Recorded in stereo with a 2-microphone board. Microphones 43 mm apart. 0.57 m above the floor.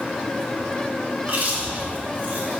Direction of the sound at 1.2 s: 45° right (ahead or behind).